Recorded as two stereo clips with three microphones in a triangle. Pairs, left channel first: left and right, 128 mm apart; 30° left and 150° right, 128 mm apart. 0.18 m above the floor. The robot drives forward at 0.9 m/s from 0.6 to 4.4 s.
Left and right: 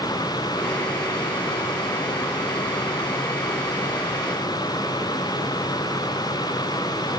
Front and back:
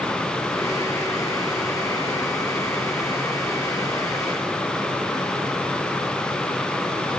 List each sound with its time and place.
Only background noise.